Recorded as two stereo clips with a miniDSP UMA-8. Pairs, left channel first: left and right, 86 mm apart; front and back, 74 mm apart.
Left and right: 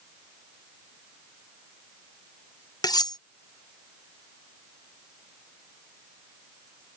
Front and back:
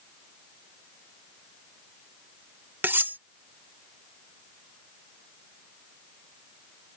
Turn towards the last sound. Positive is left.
turn(degrees=120)